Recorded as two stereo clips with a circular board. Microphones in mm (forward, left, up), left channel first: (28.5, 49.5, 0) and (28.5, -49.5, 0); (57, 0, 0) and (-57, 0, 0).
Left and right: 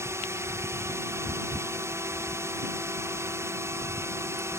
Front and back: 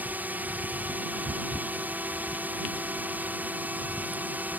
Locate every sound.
0.0 s a drone: 120° right